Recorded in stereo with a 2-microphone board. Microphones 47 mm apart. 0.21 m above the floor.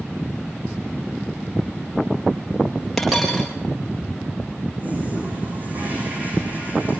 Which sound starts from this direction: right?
A toilet flushing, at 4.8 s.